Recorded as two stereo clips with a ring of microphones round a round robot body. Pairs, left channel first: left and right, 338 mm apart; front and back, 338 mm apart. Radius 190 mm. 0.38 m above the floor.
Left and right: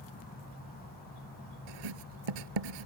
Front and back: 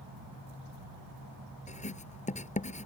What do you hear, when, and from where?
1.7 s writing: 70° right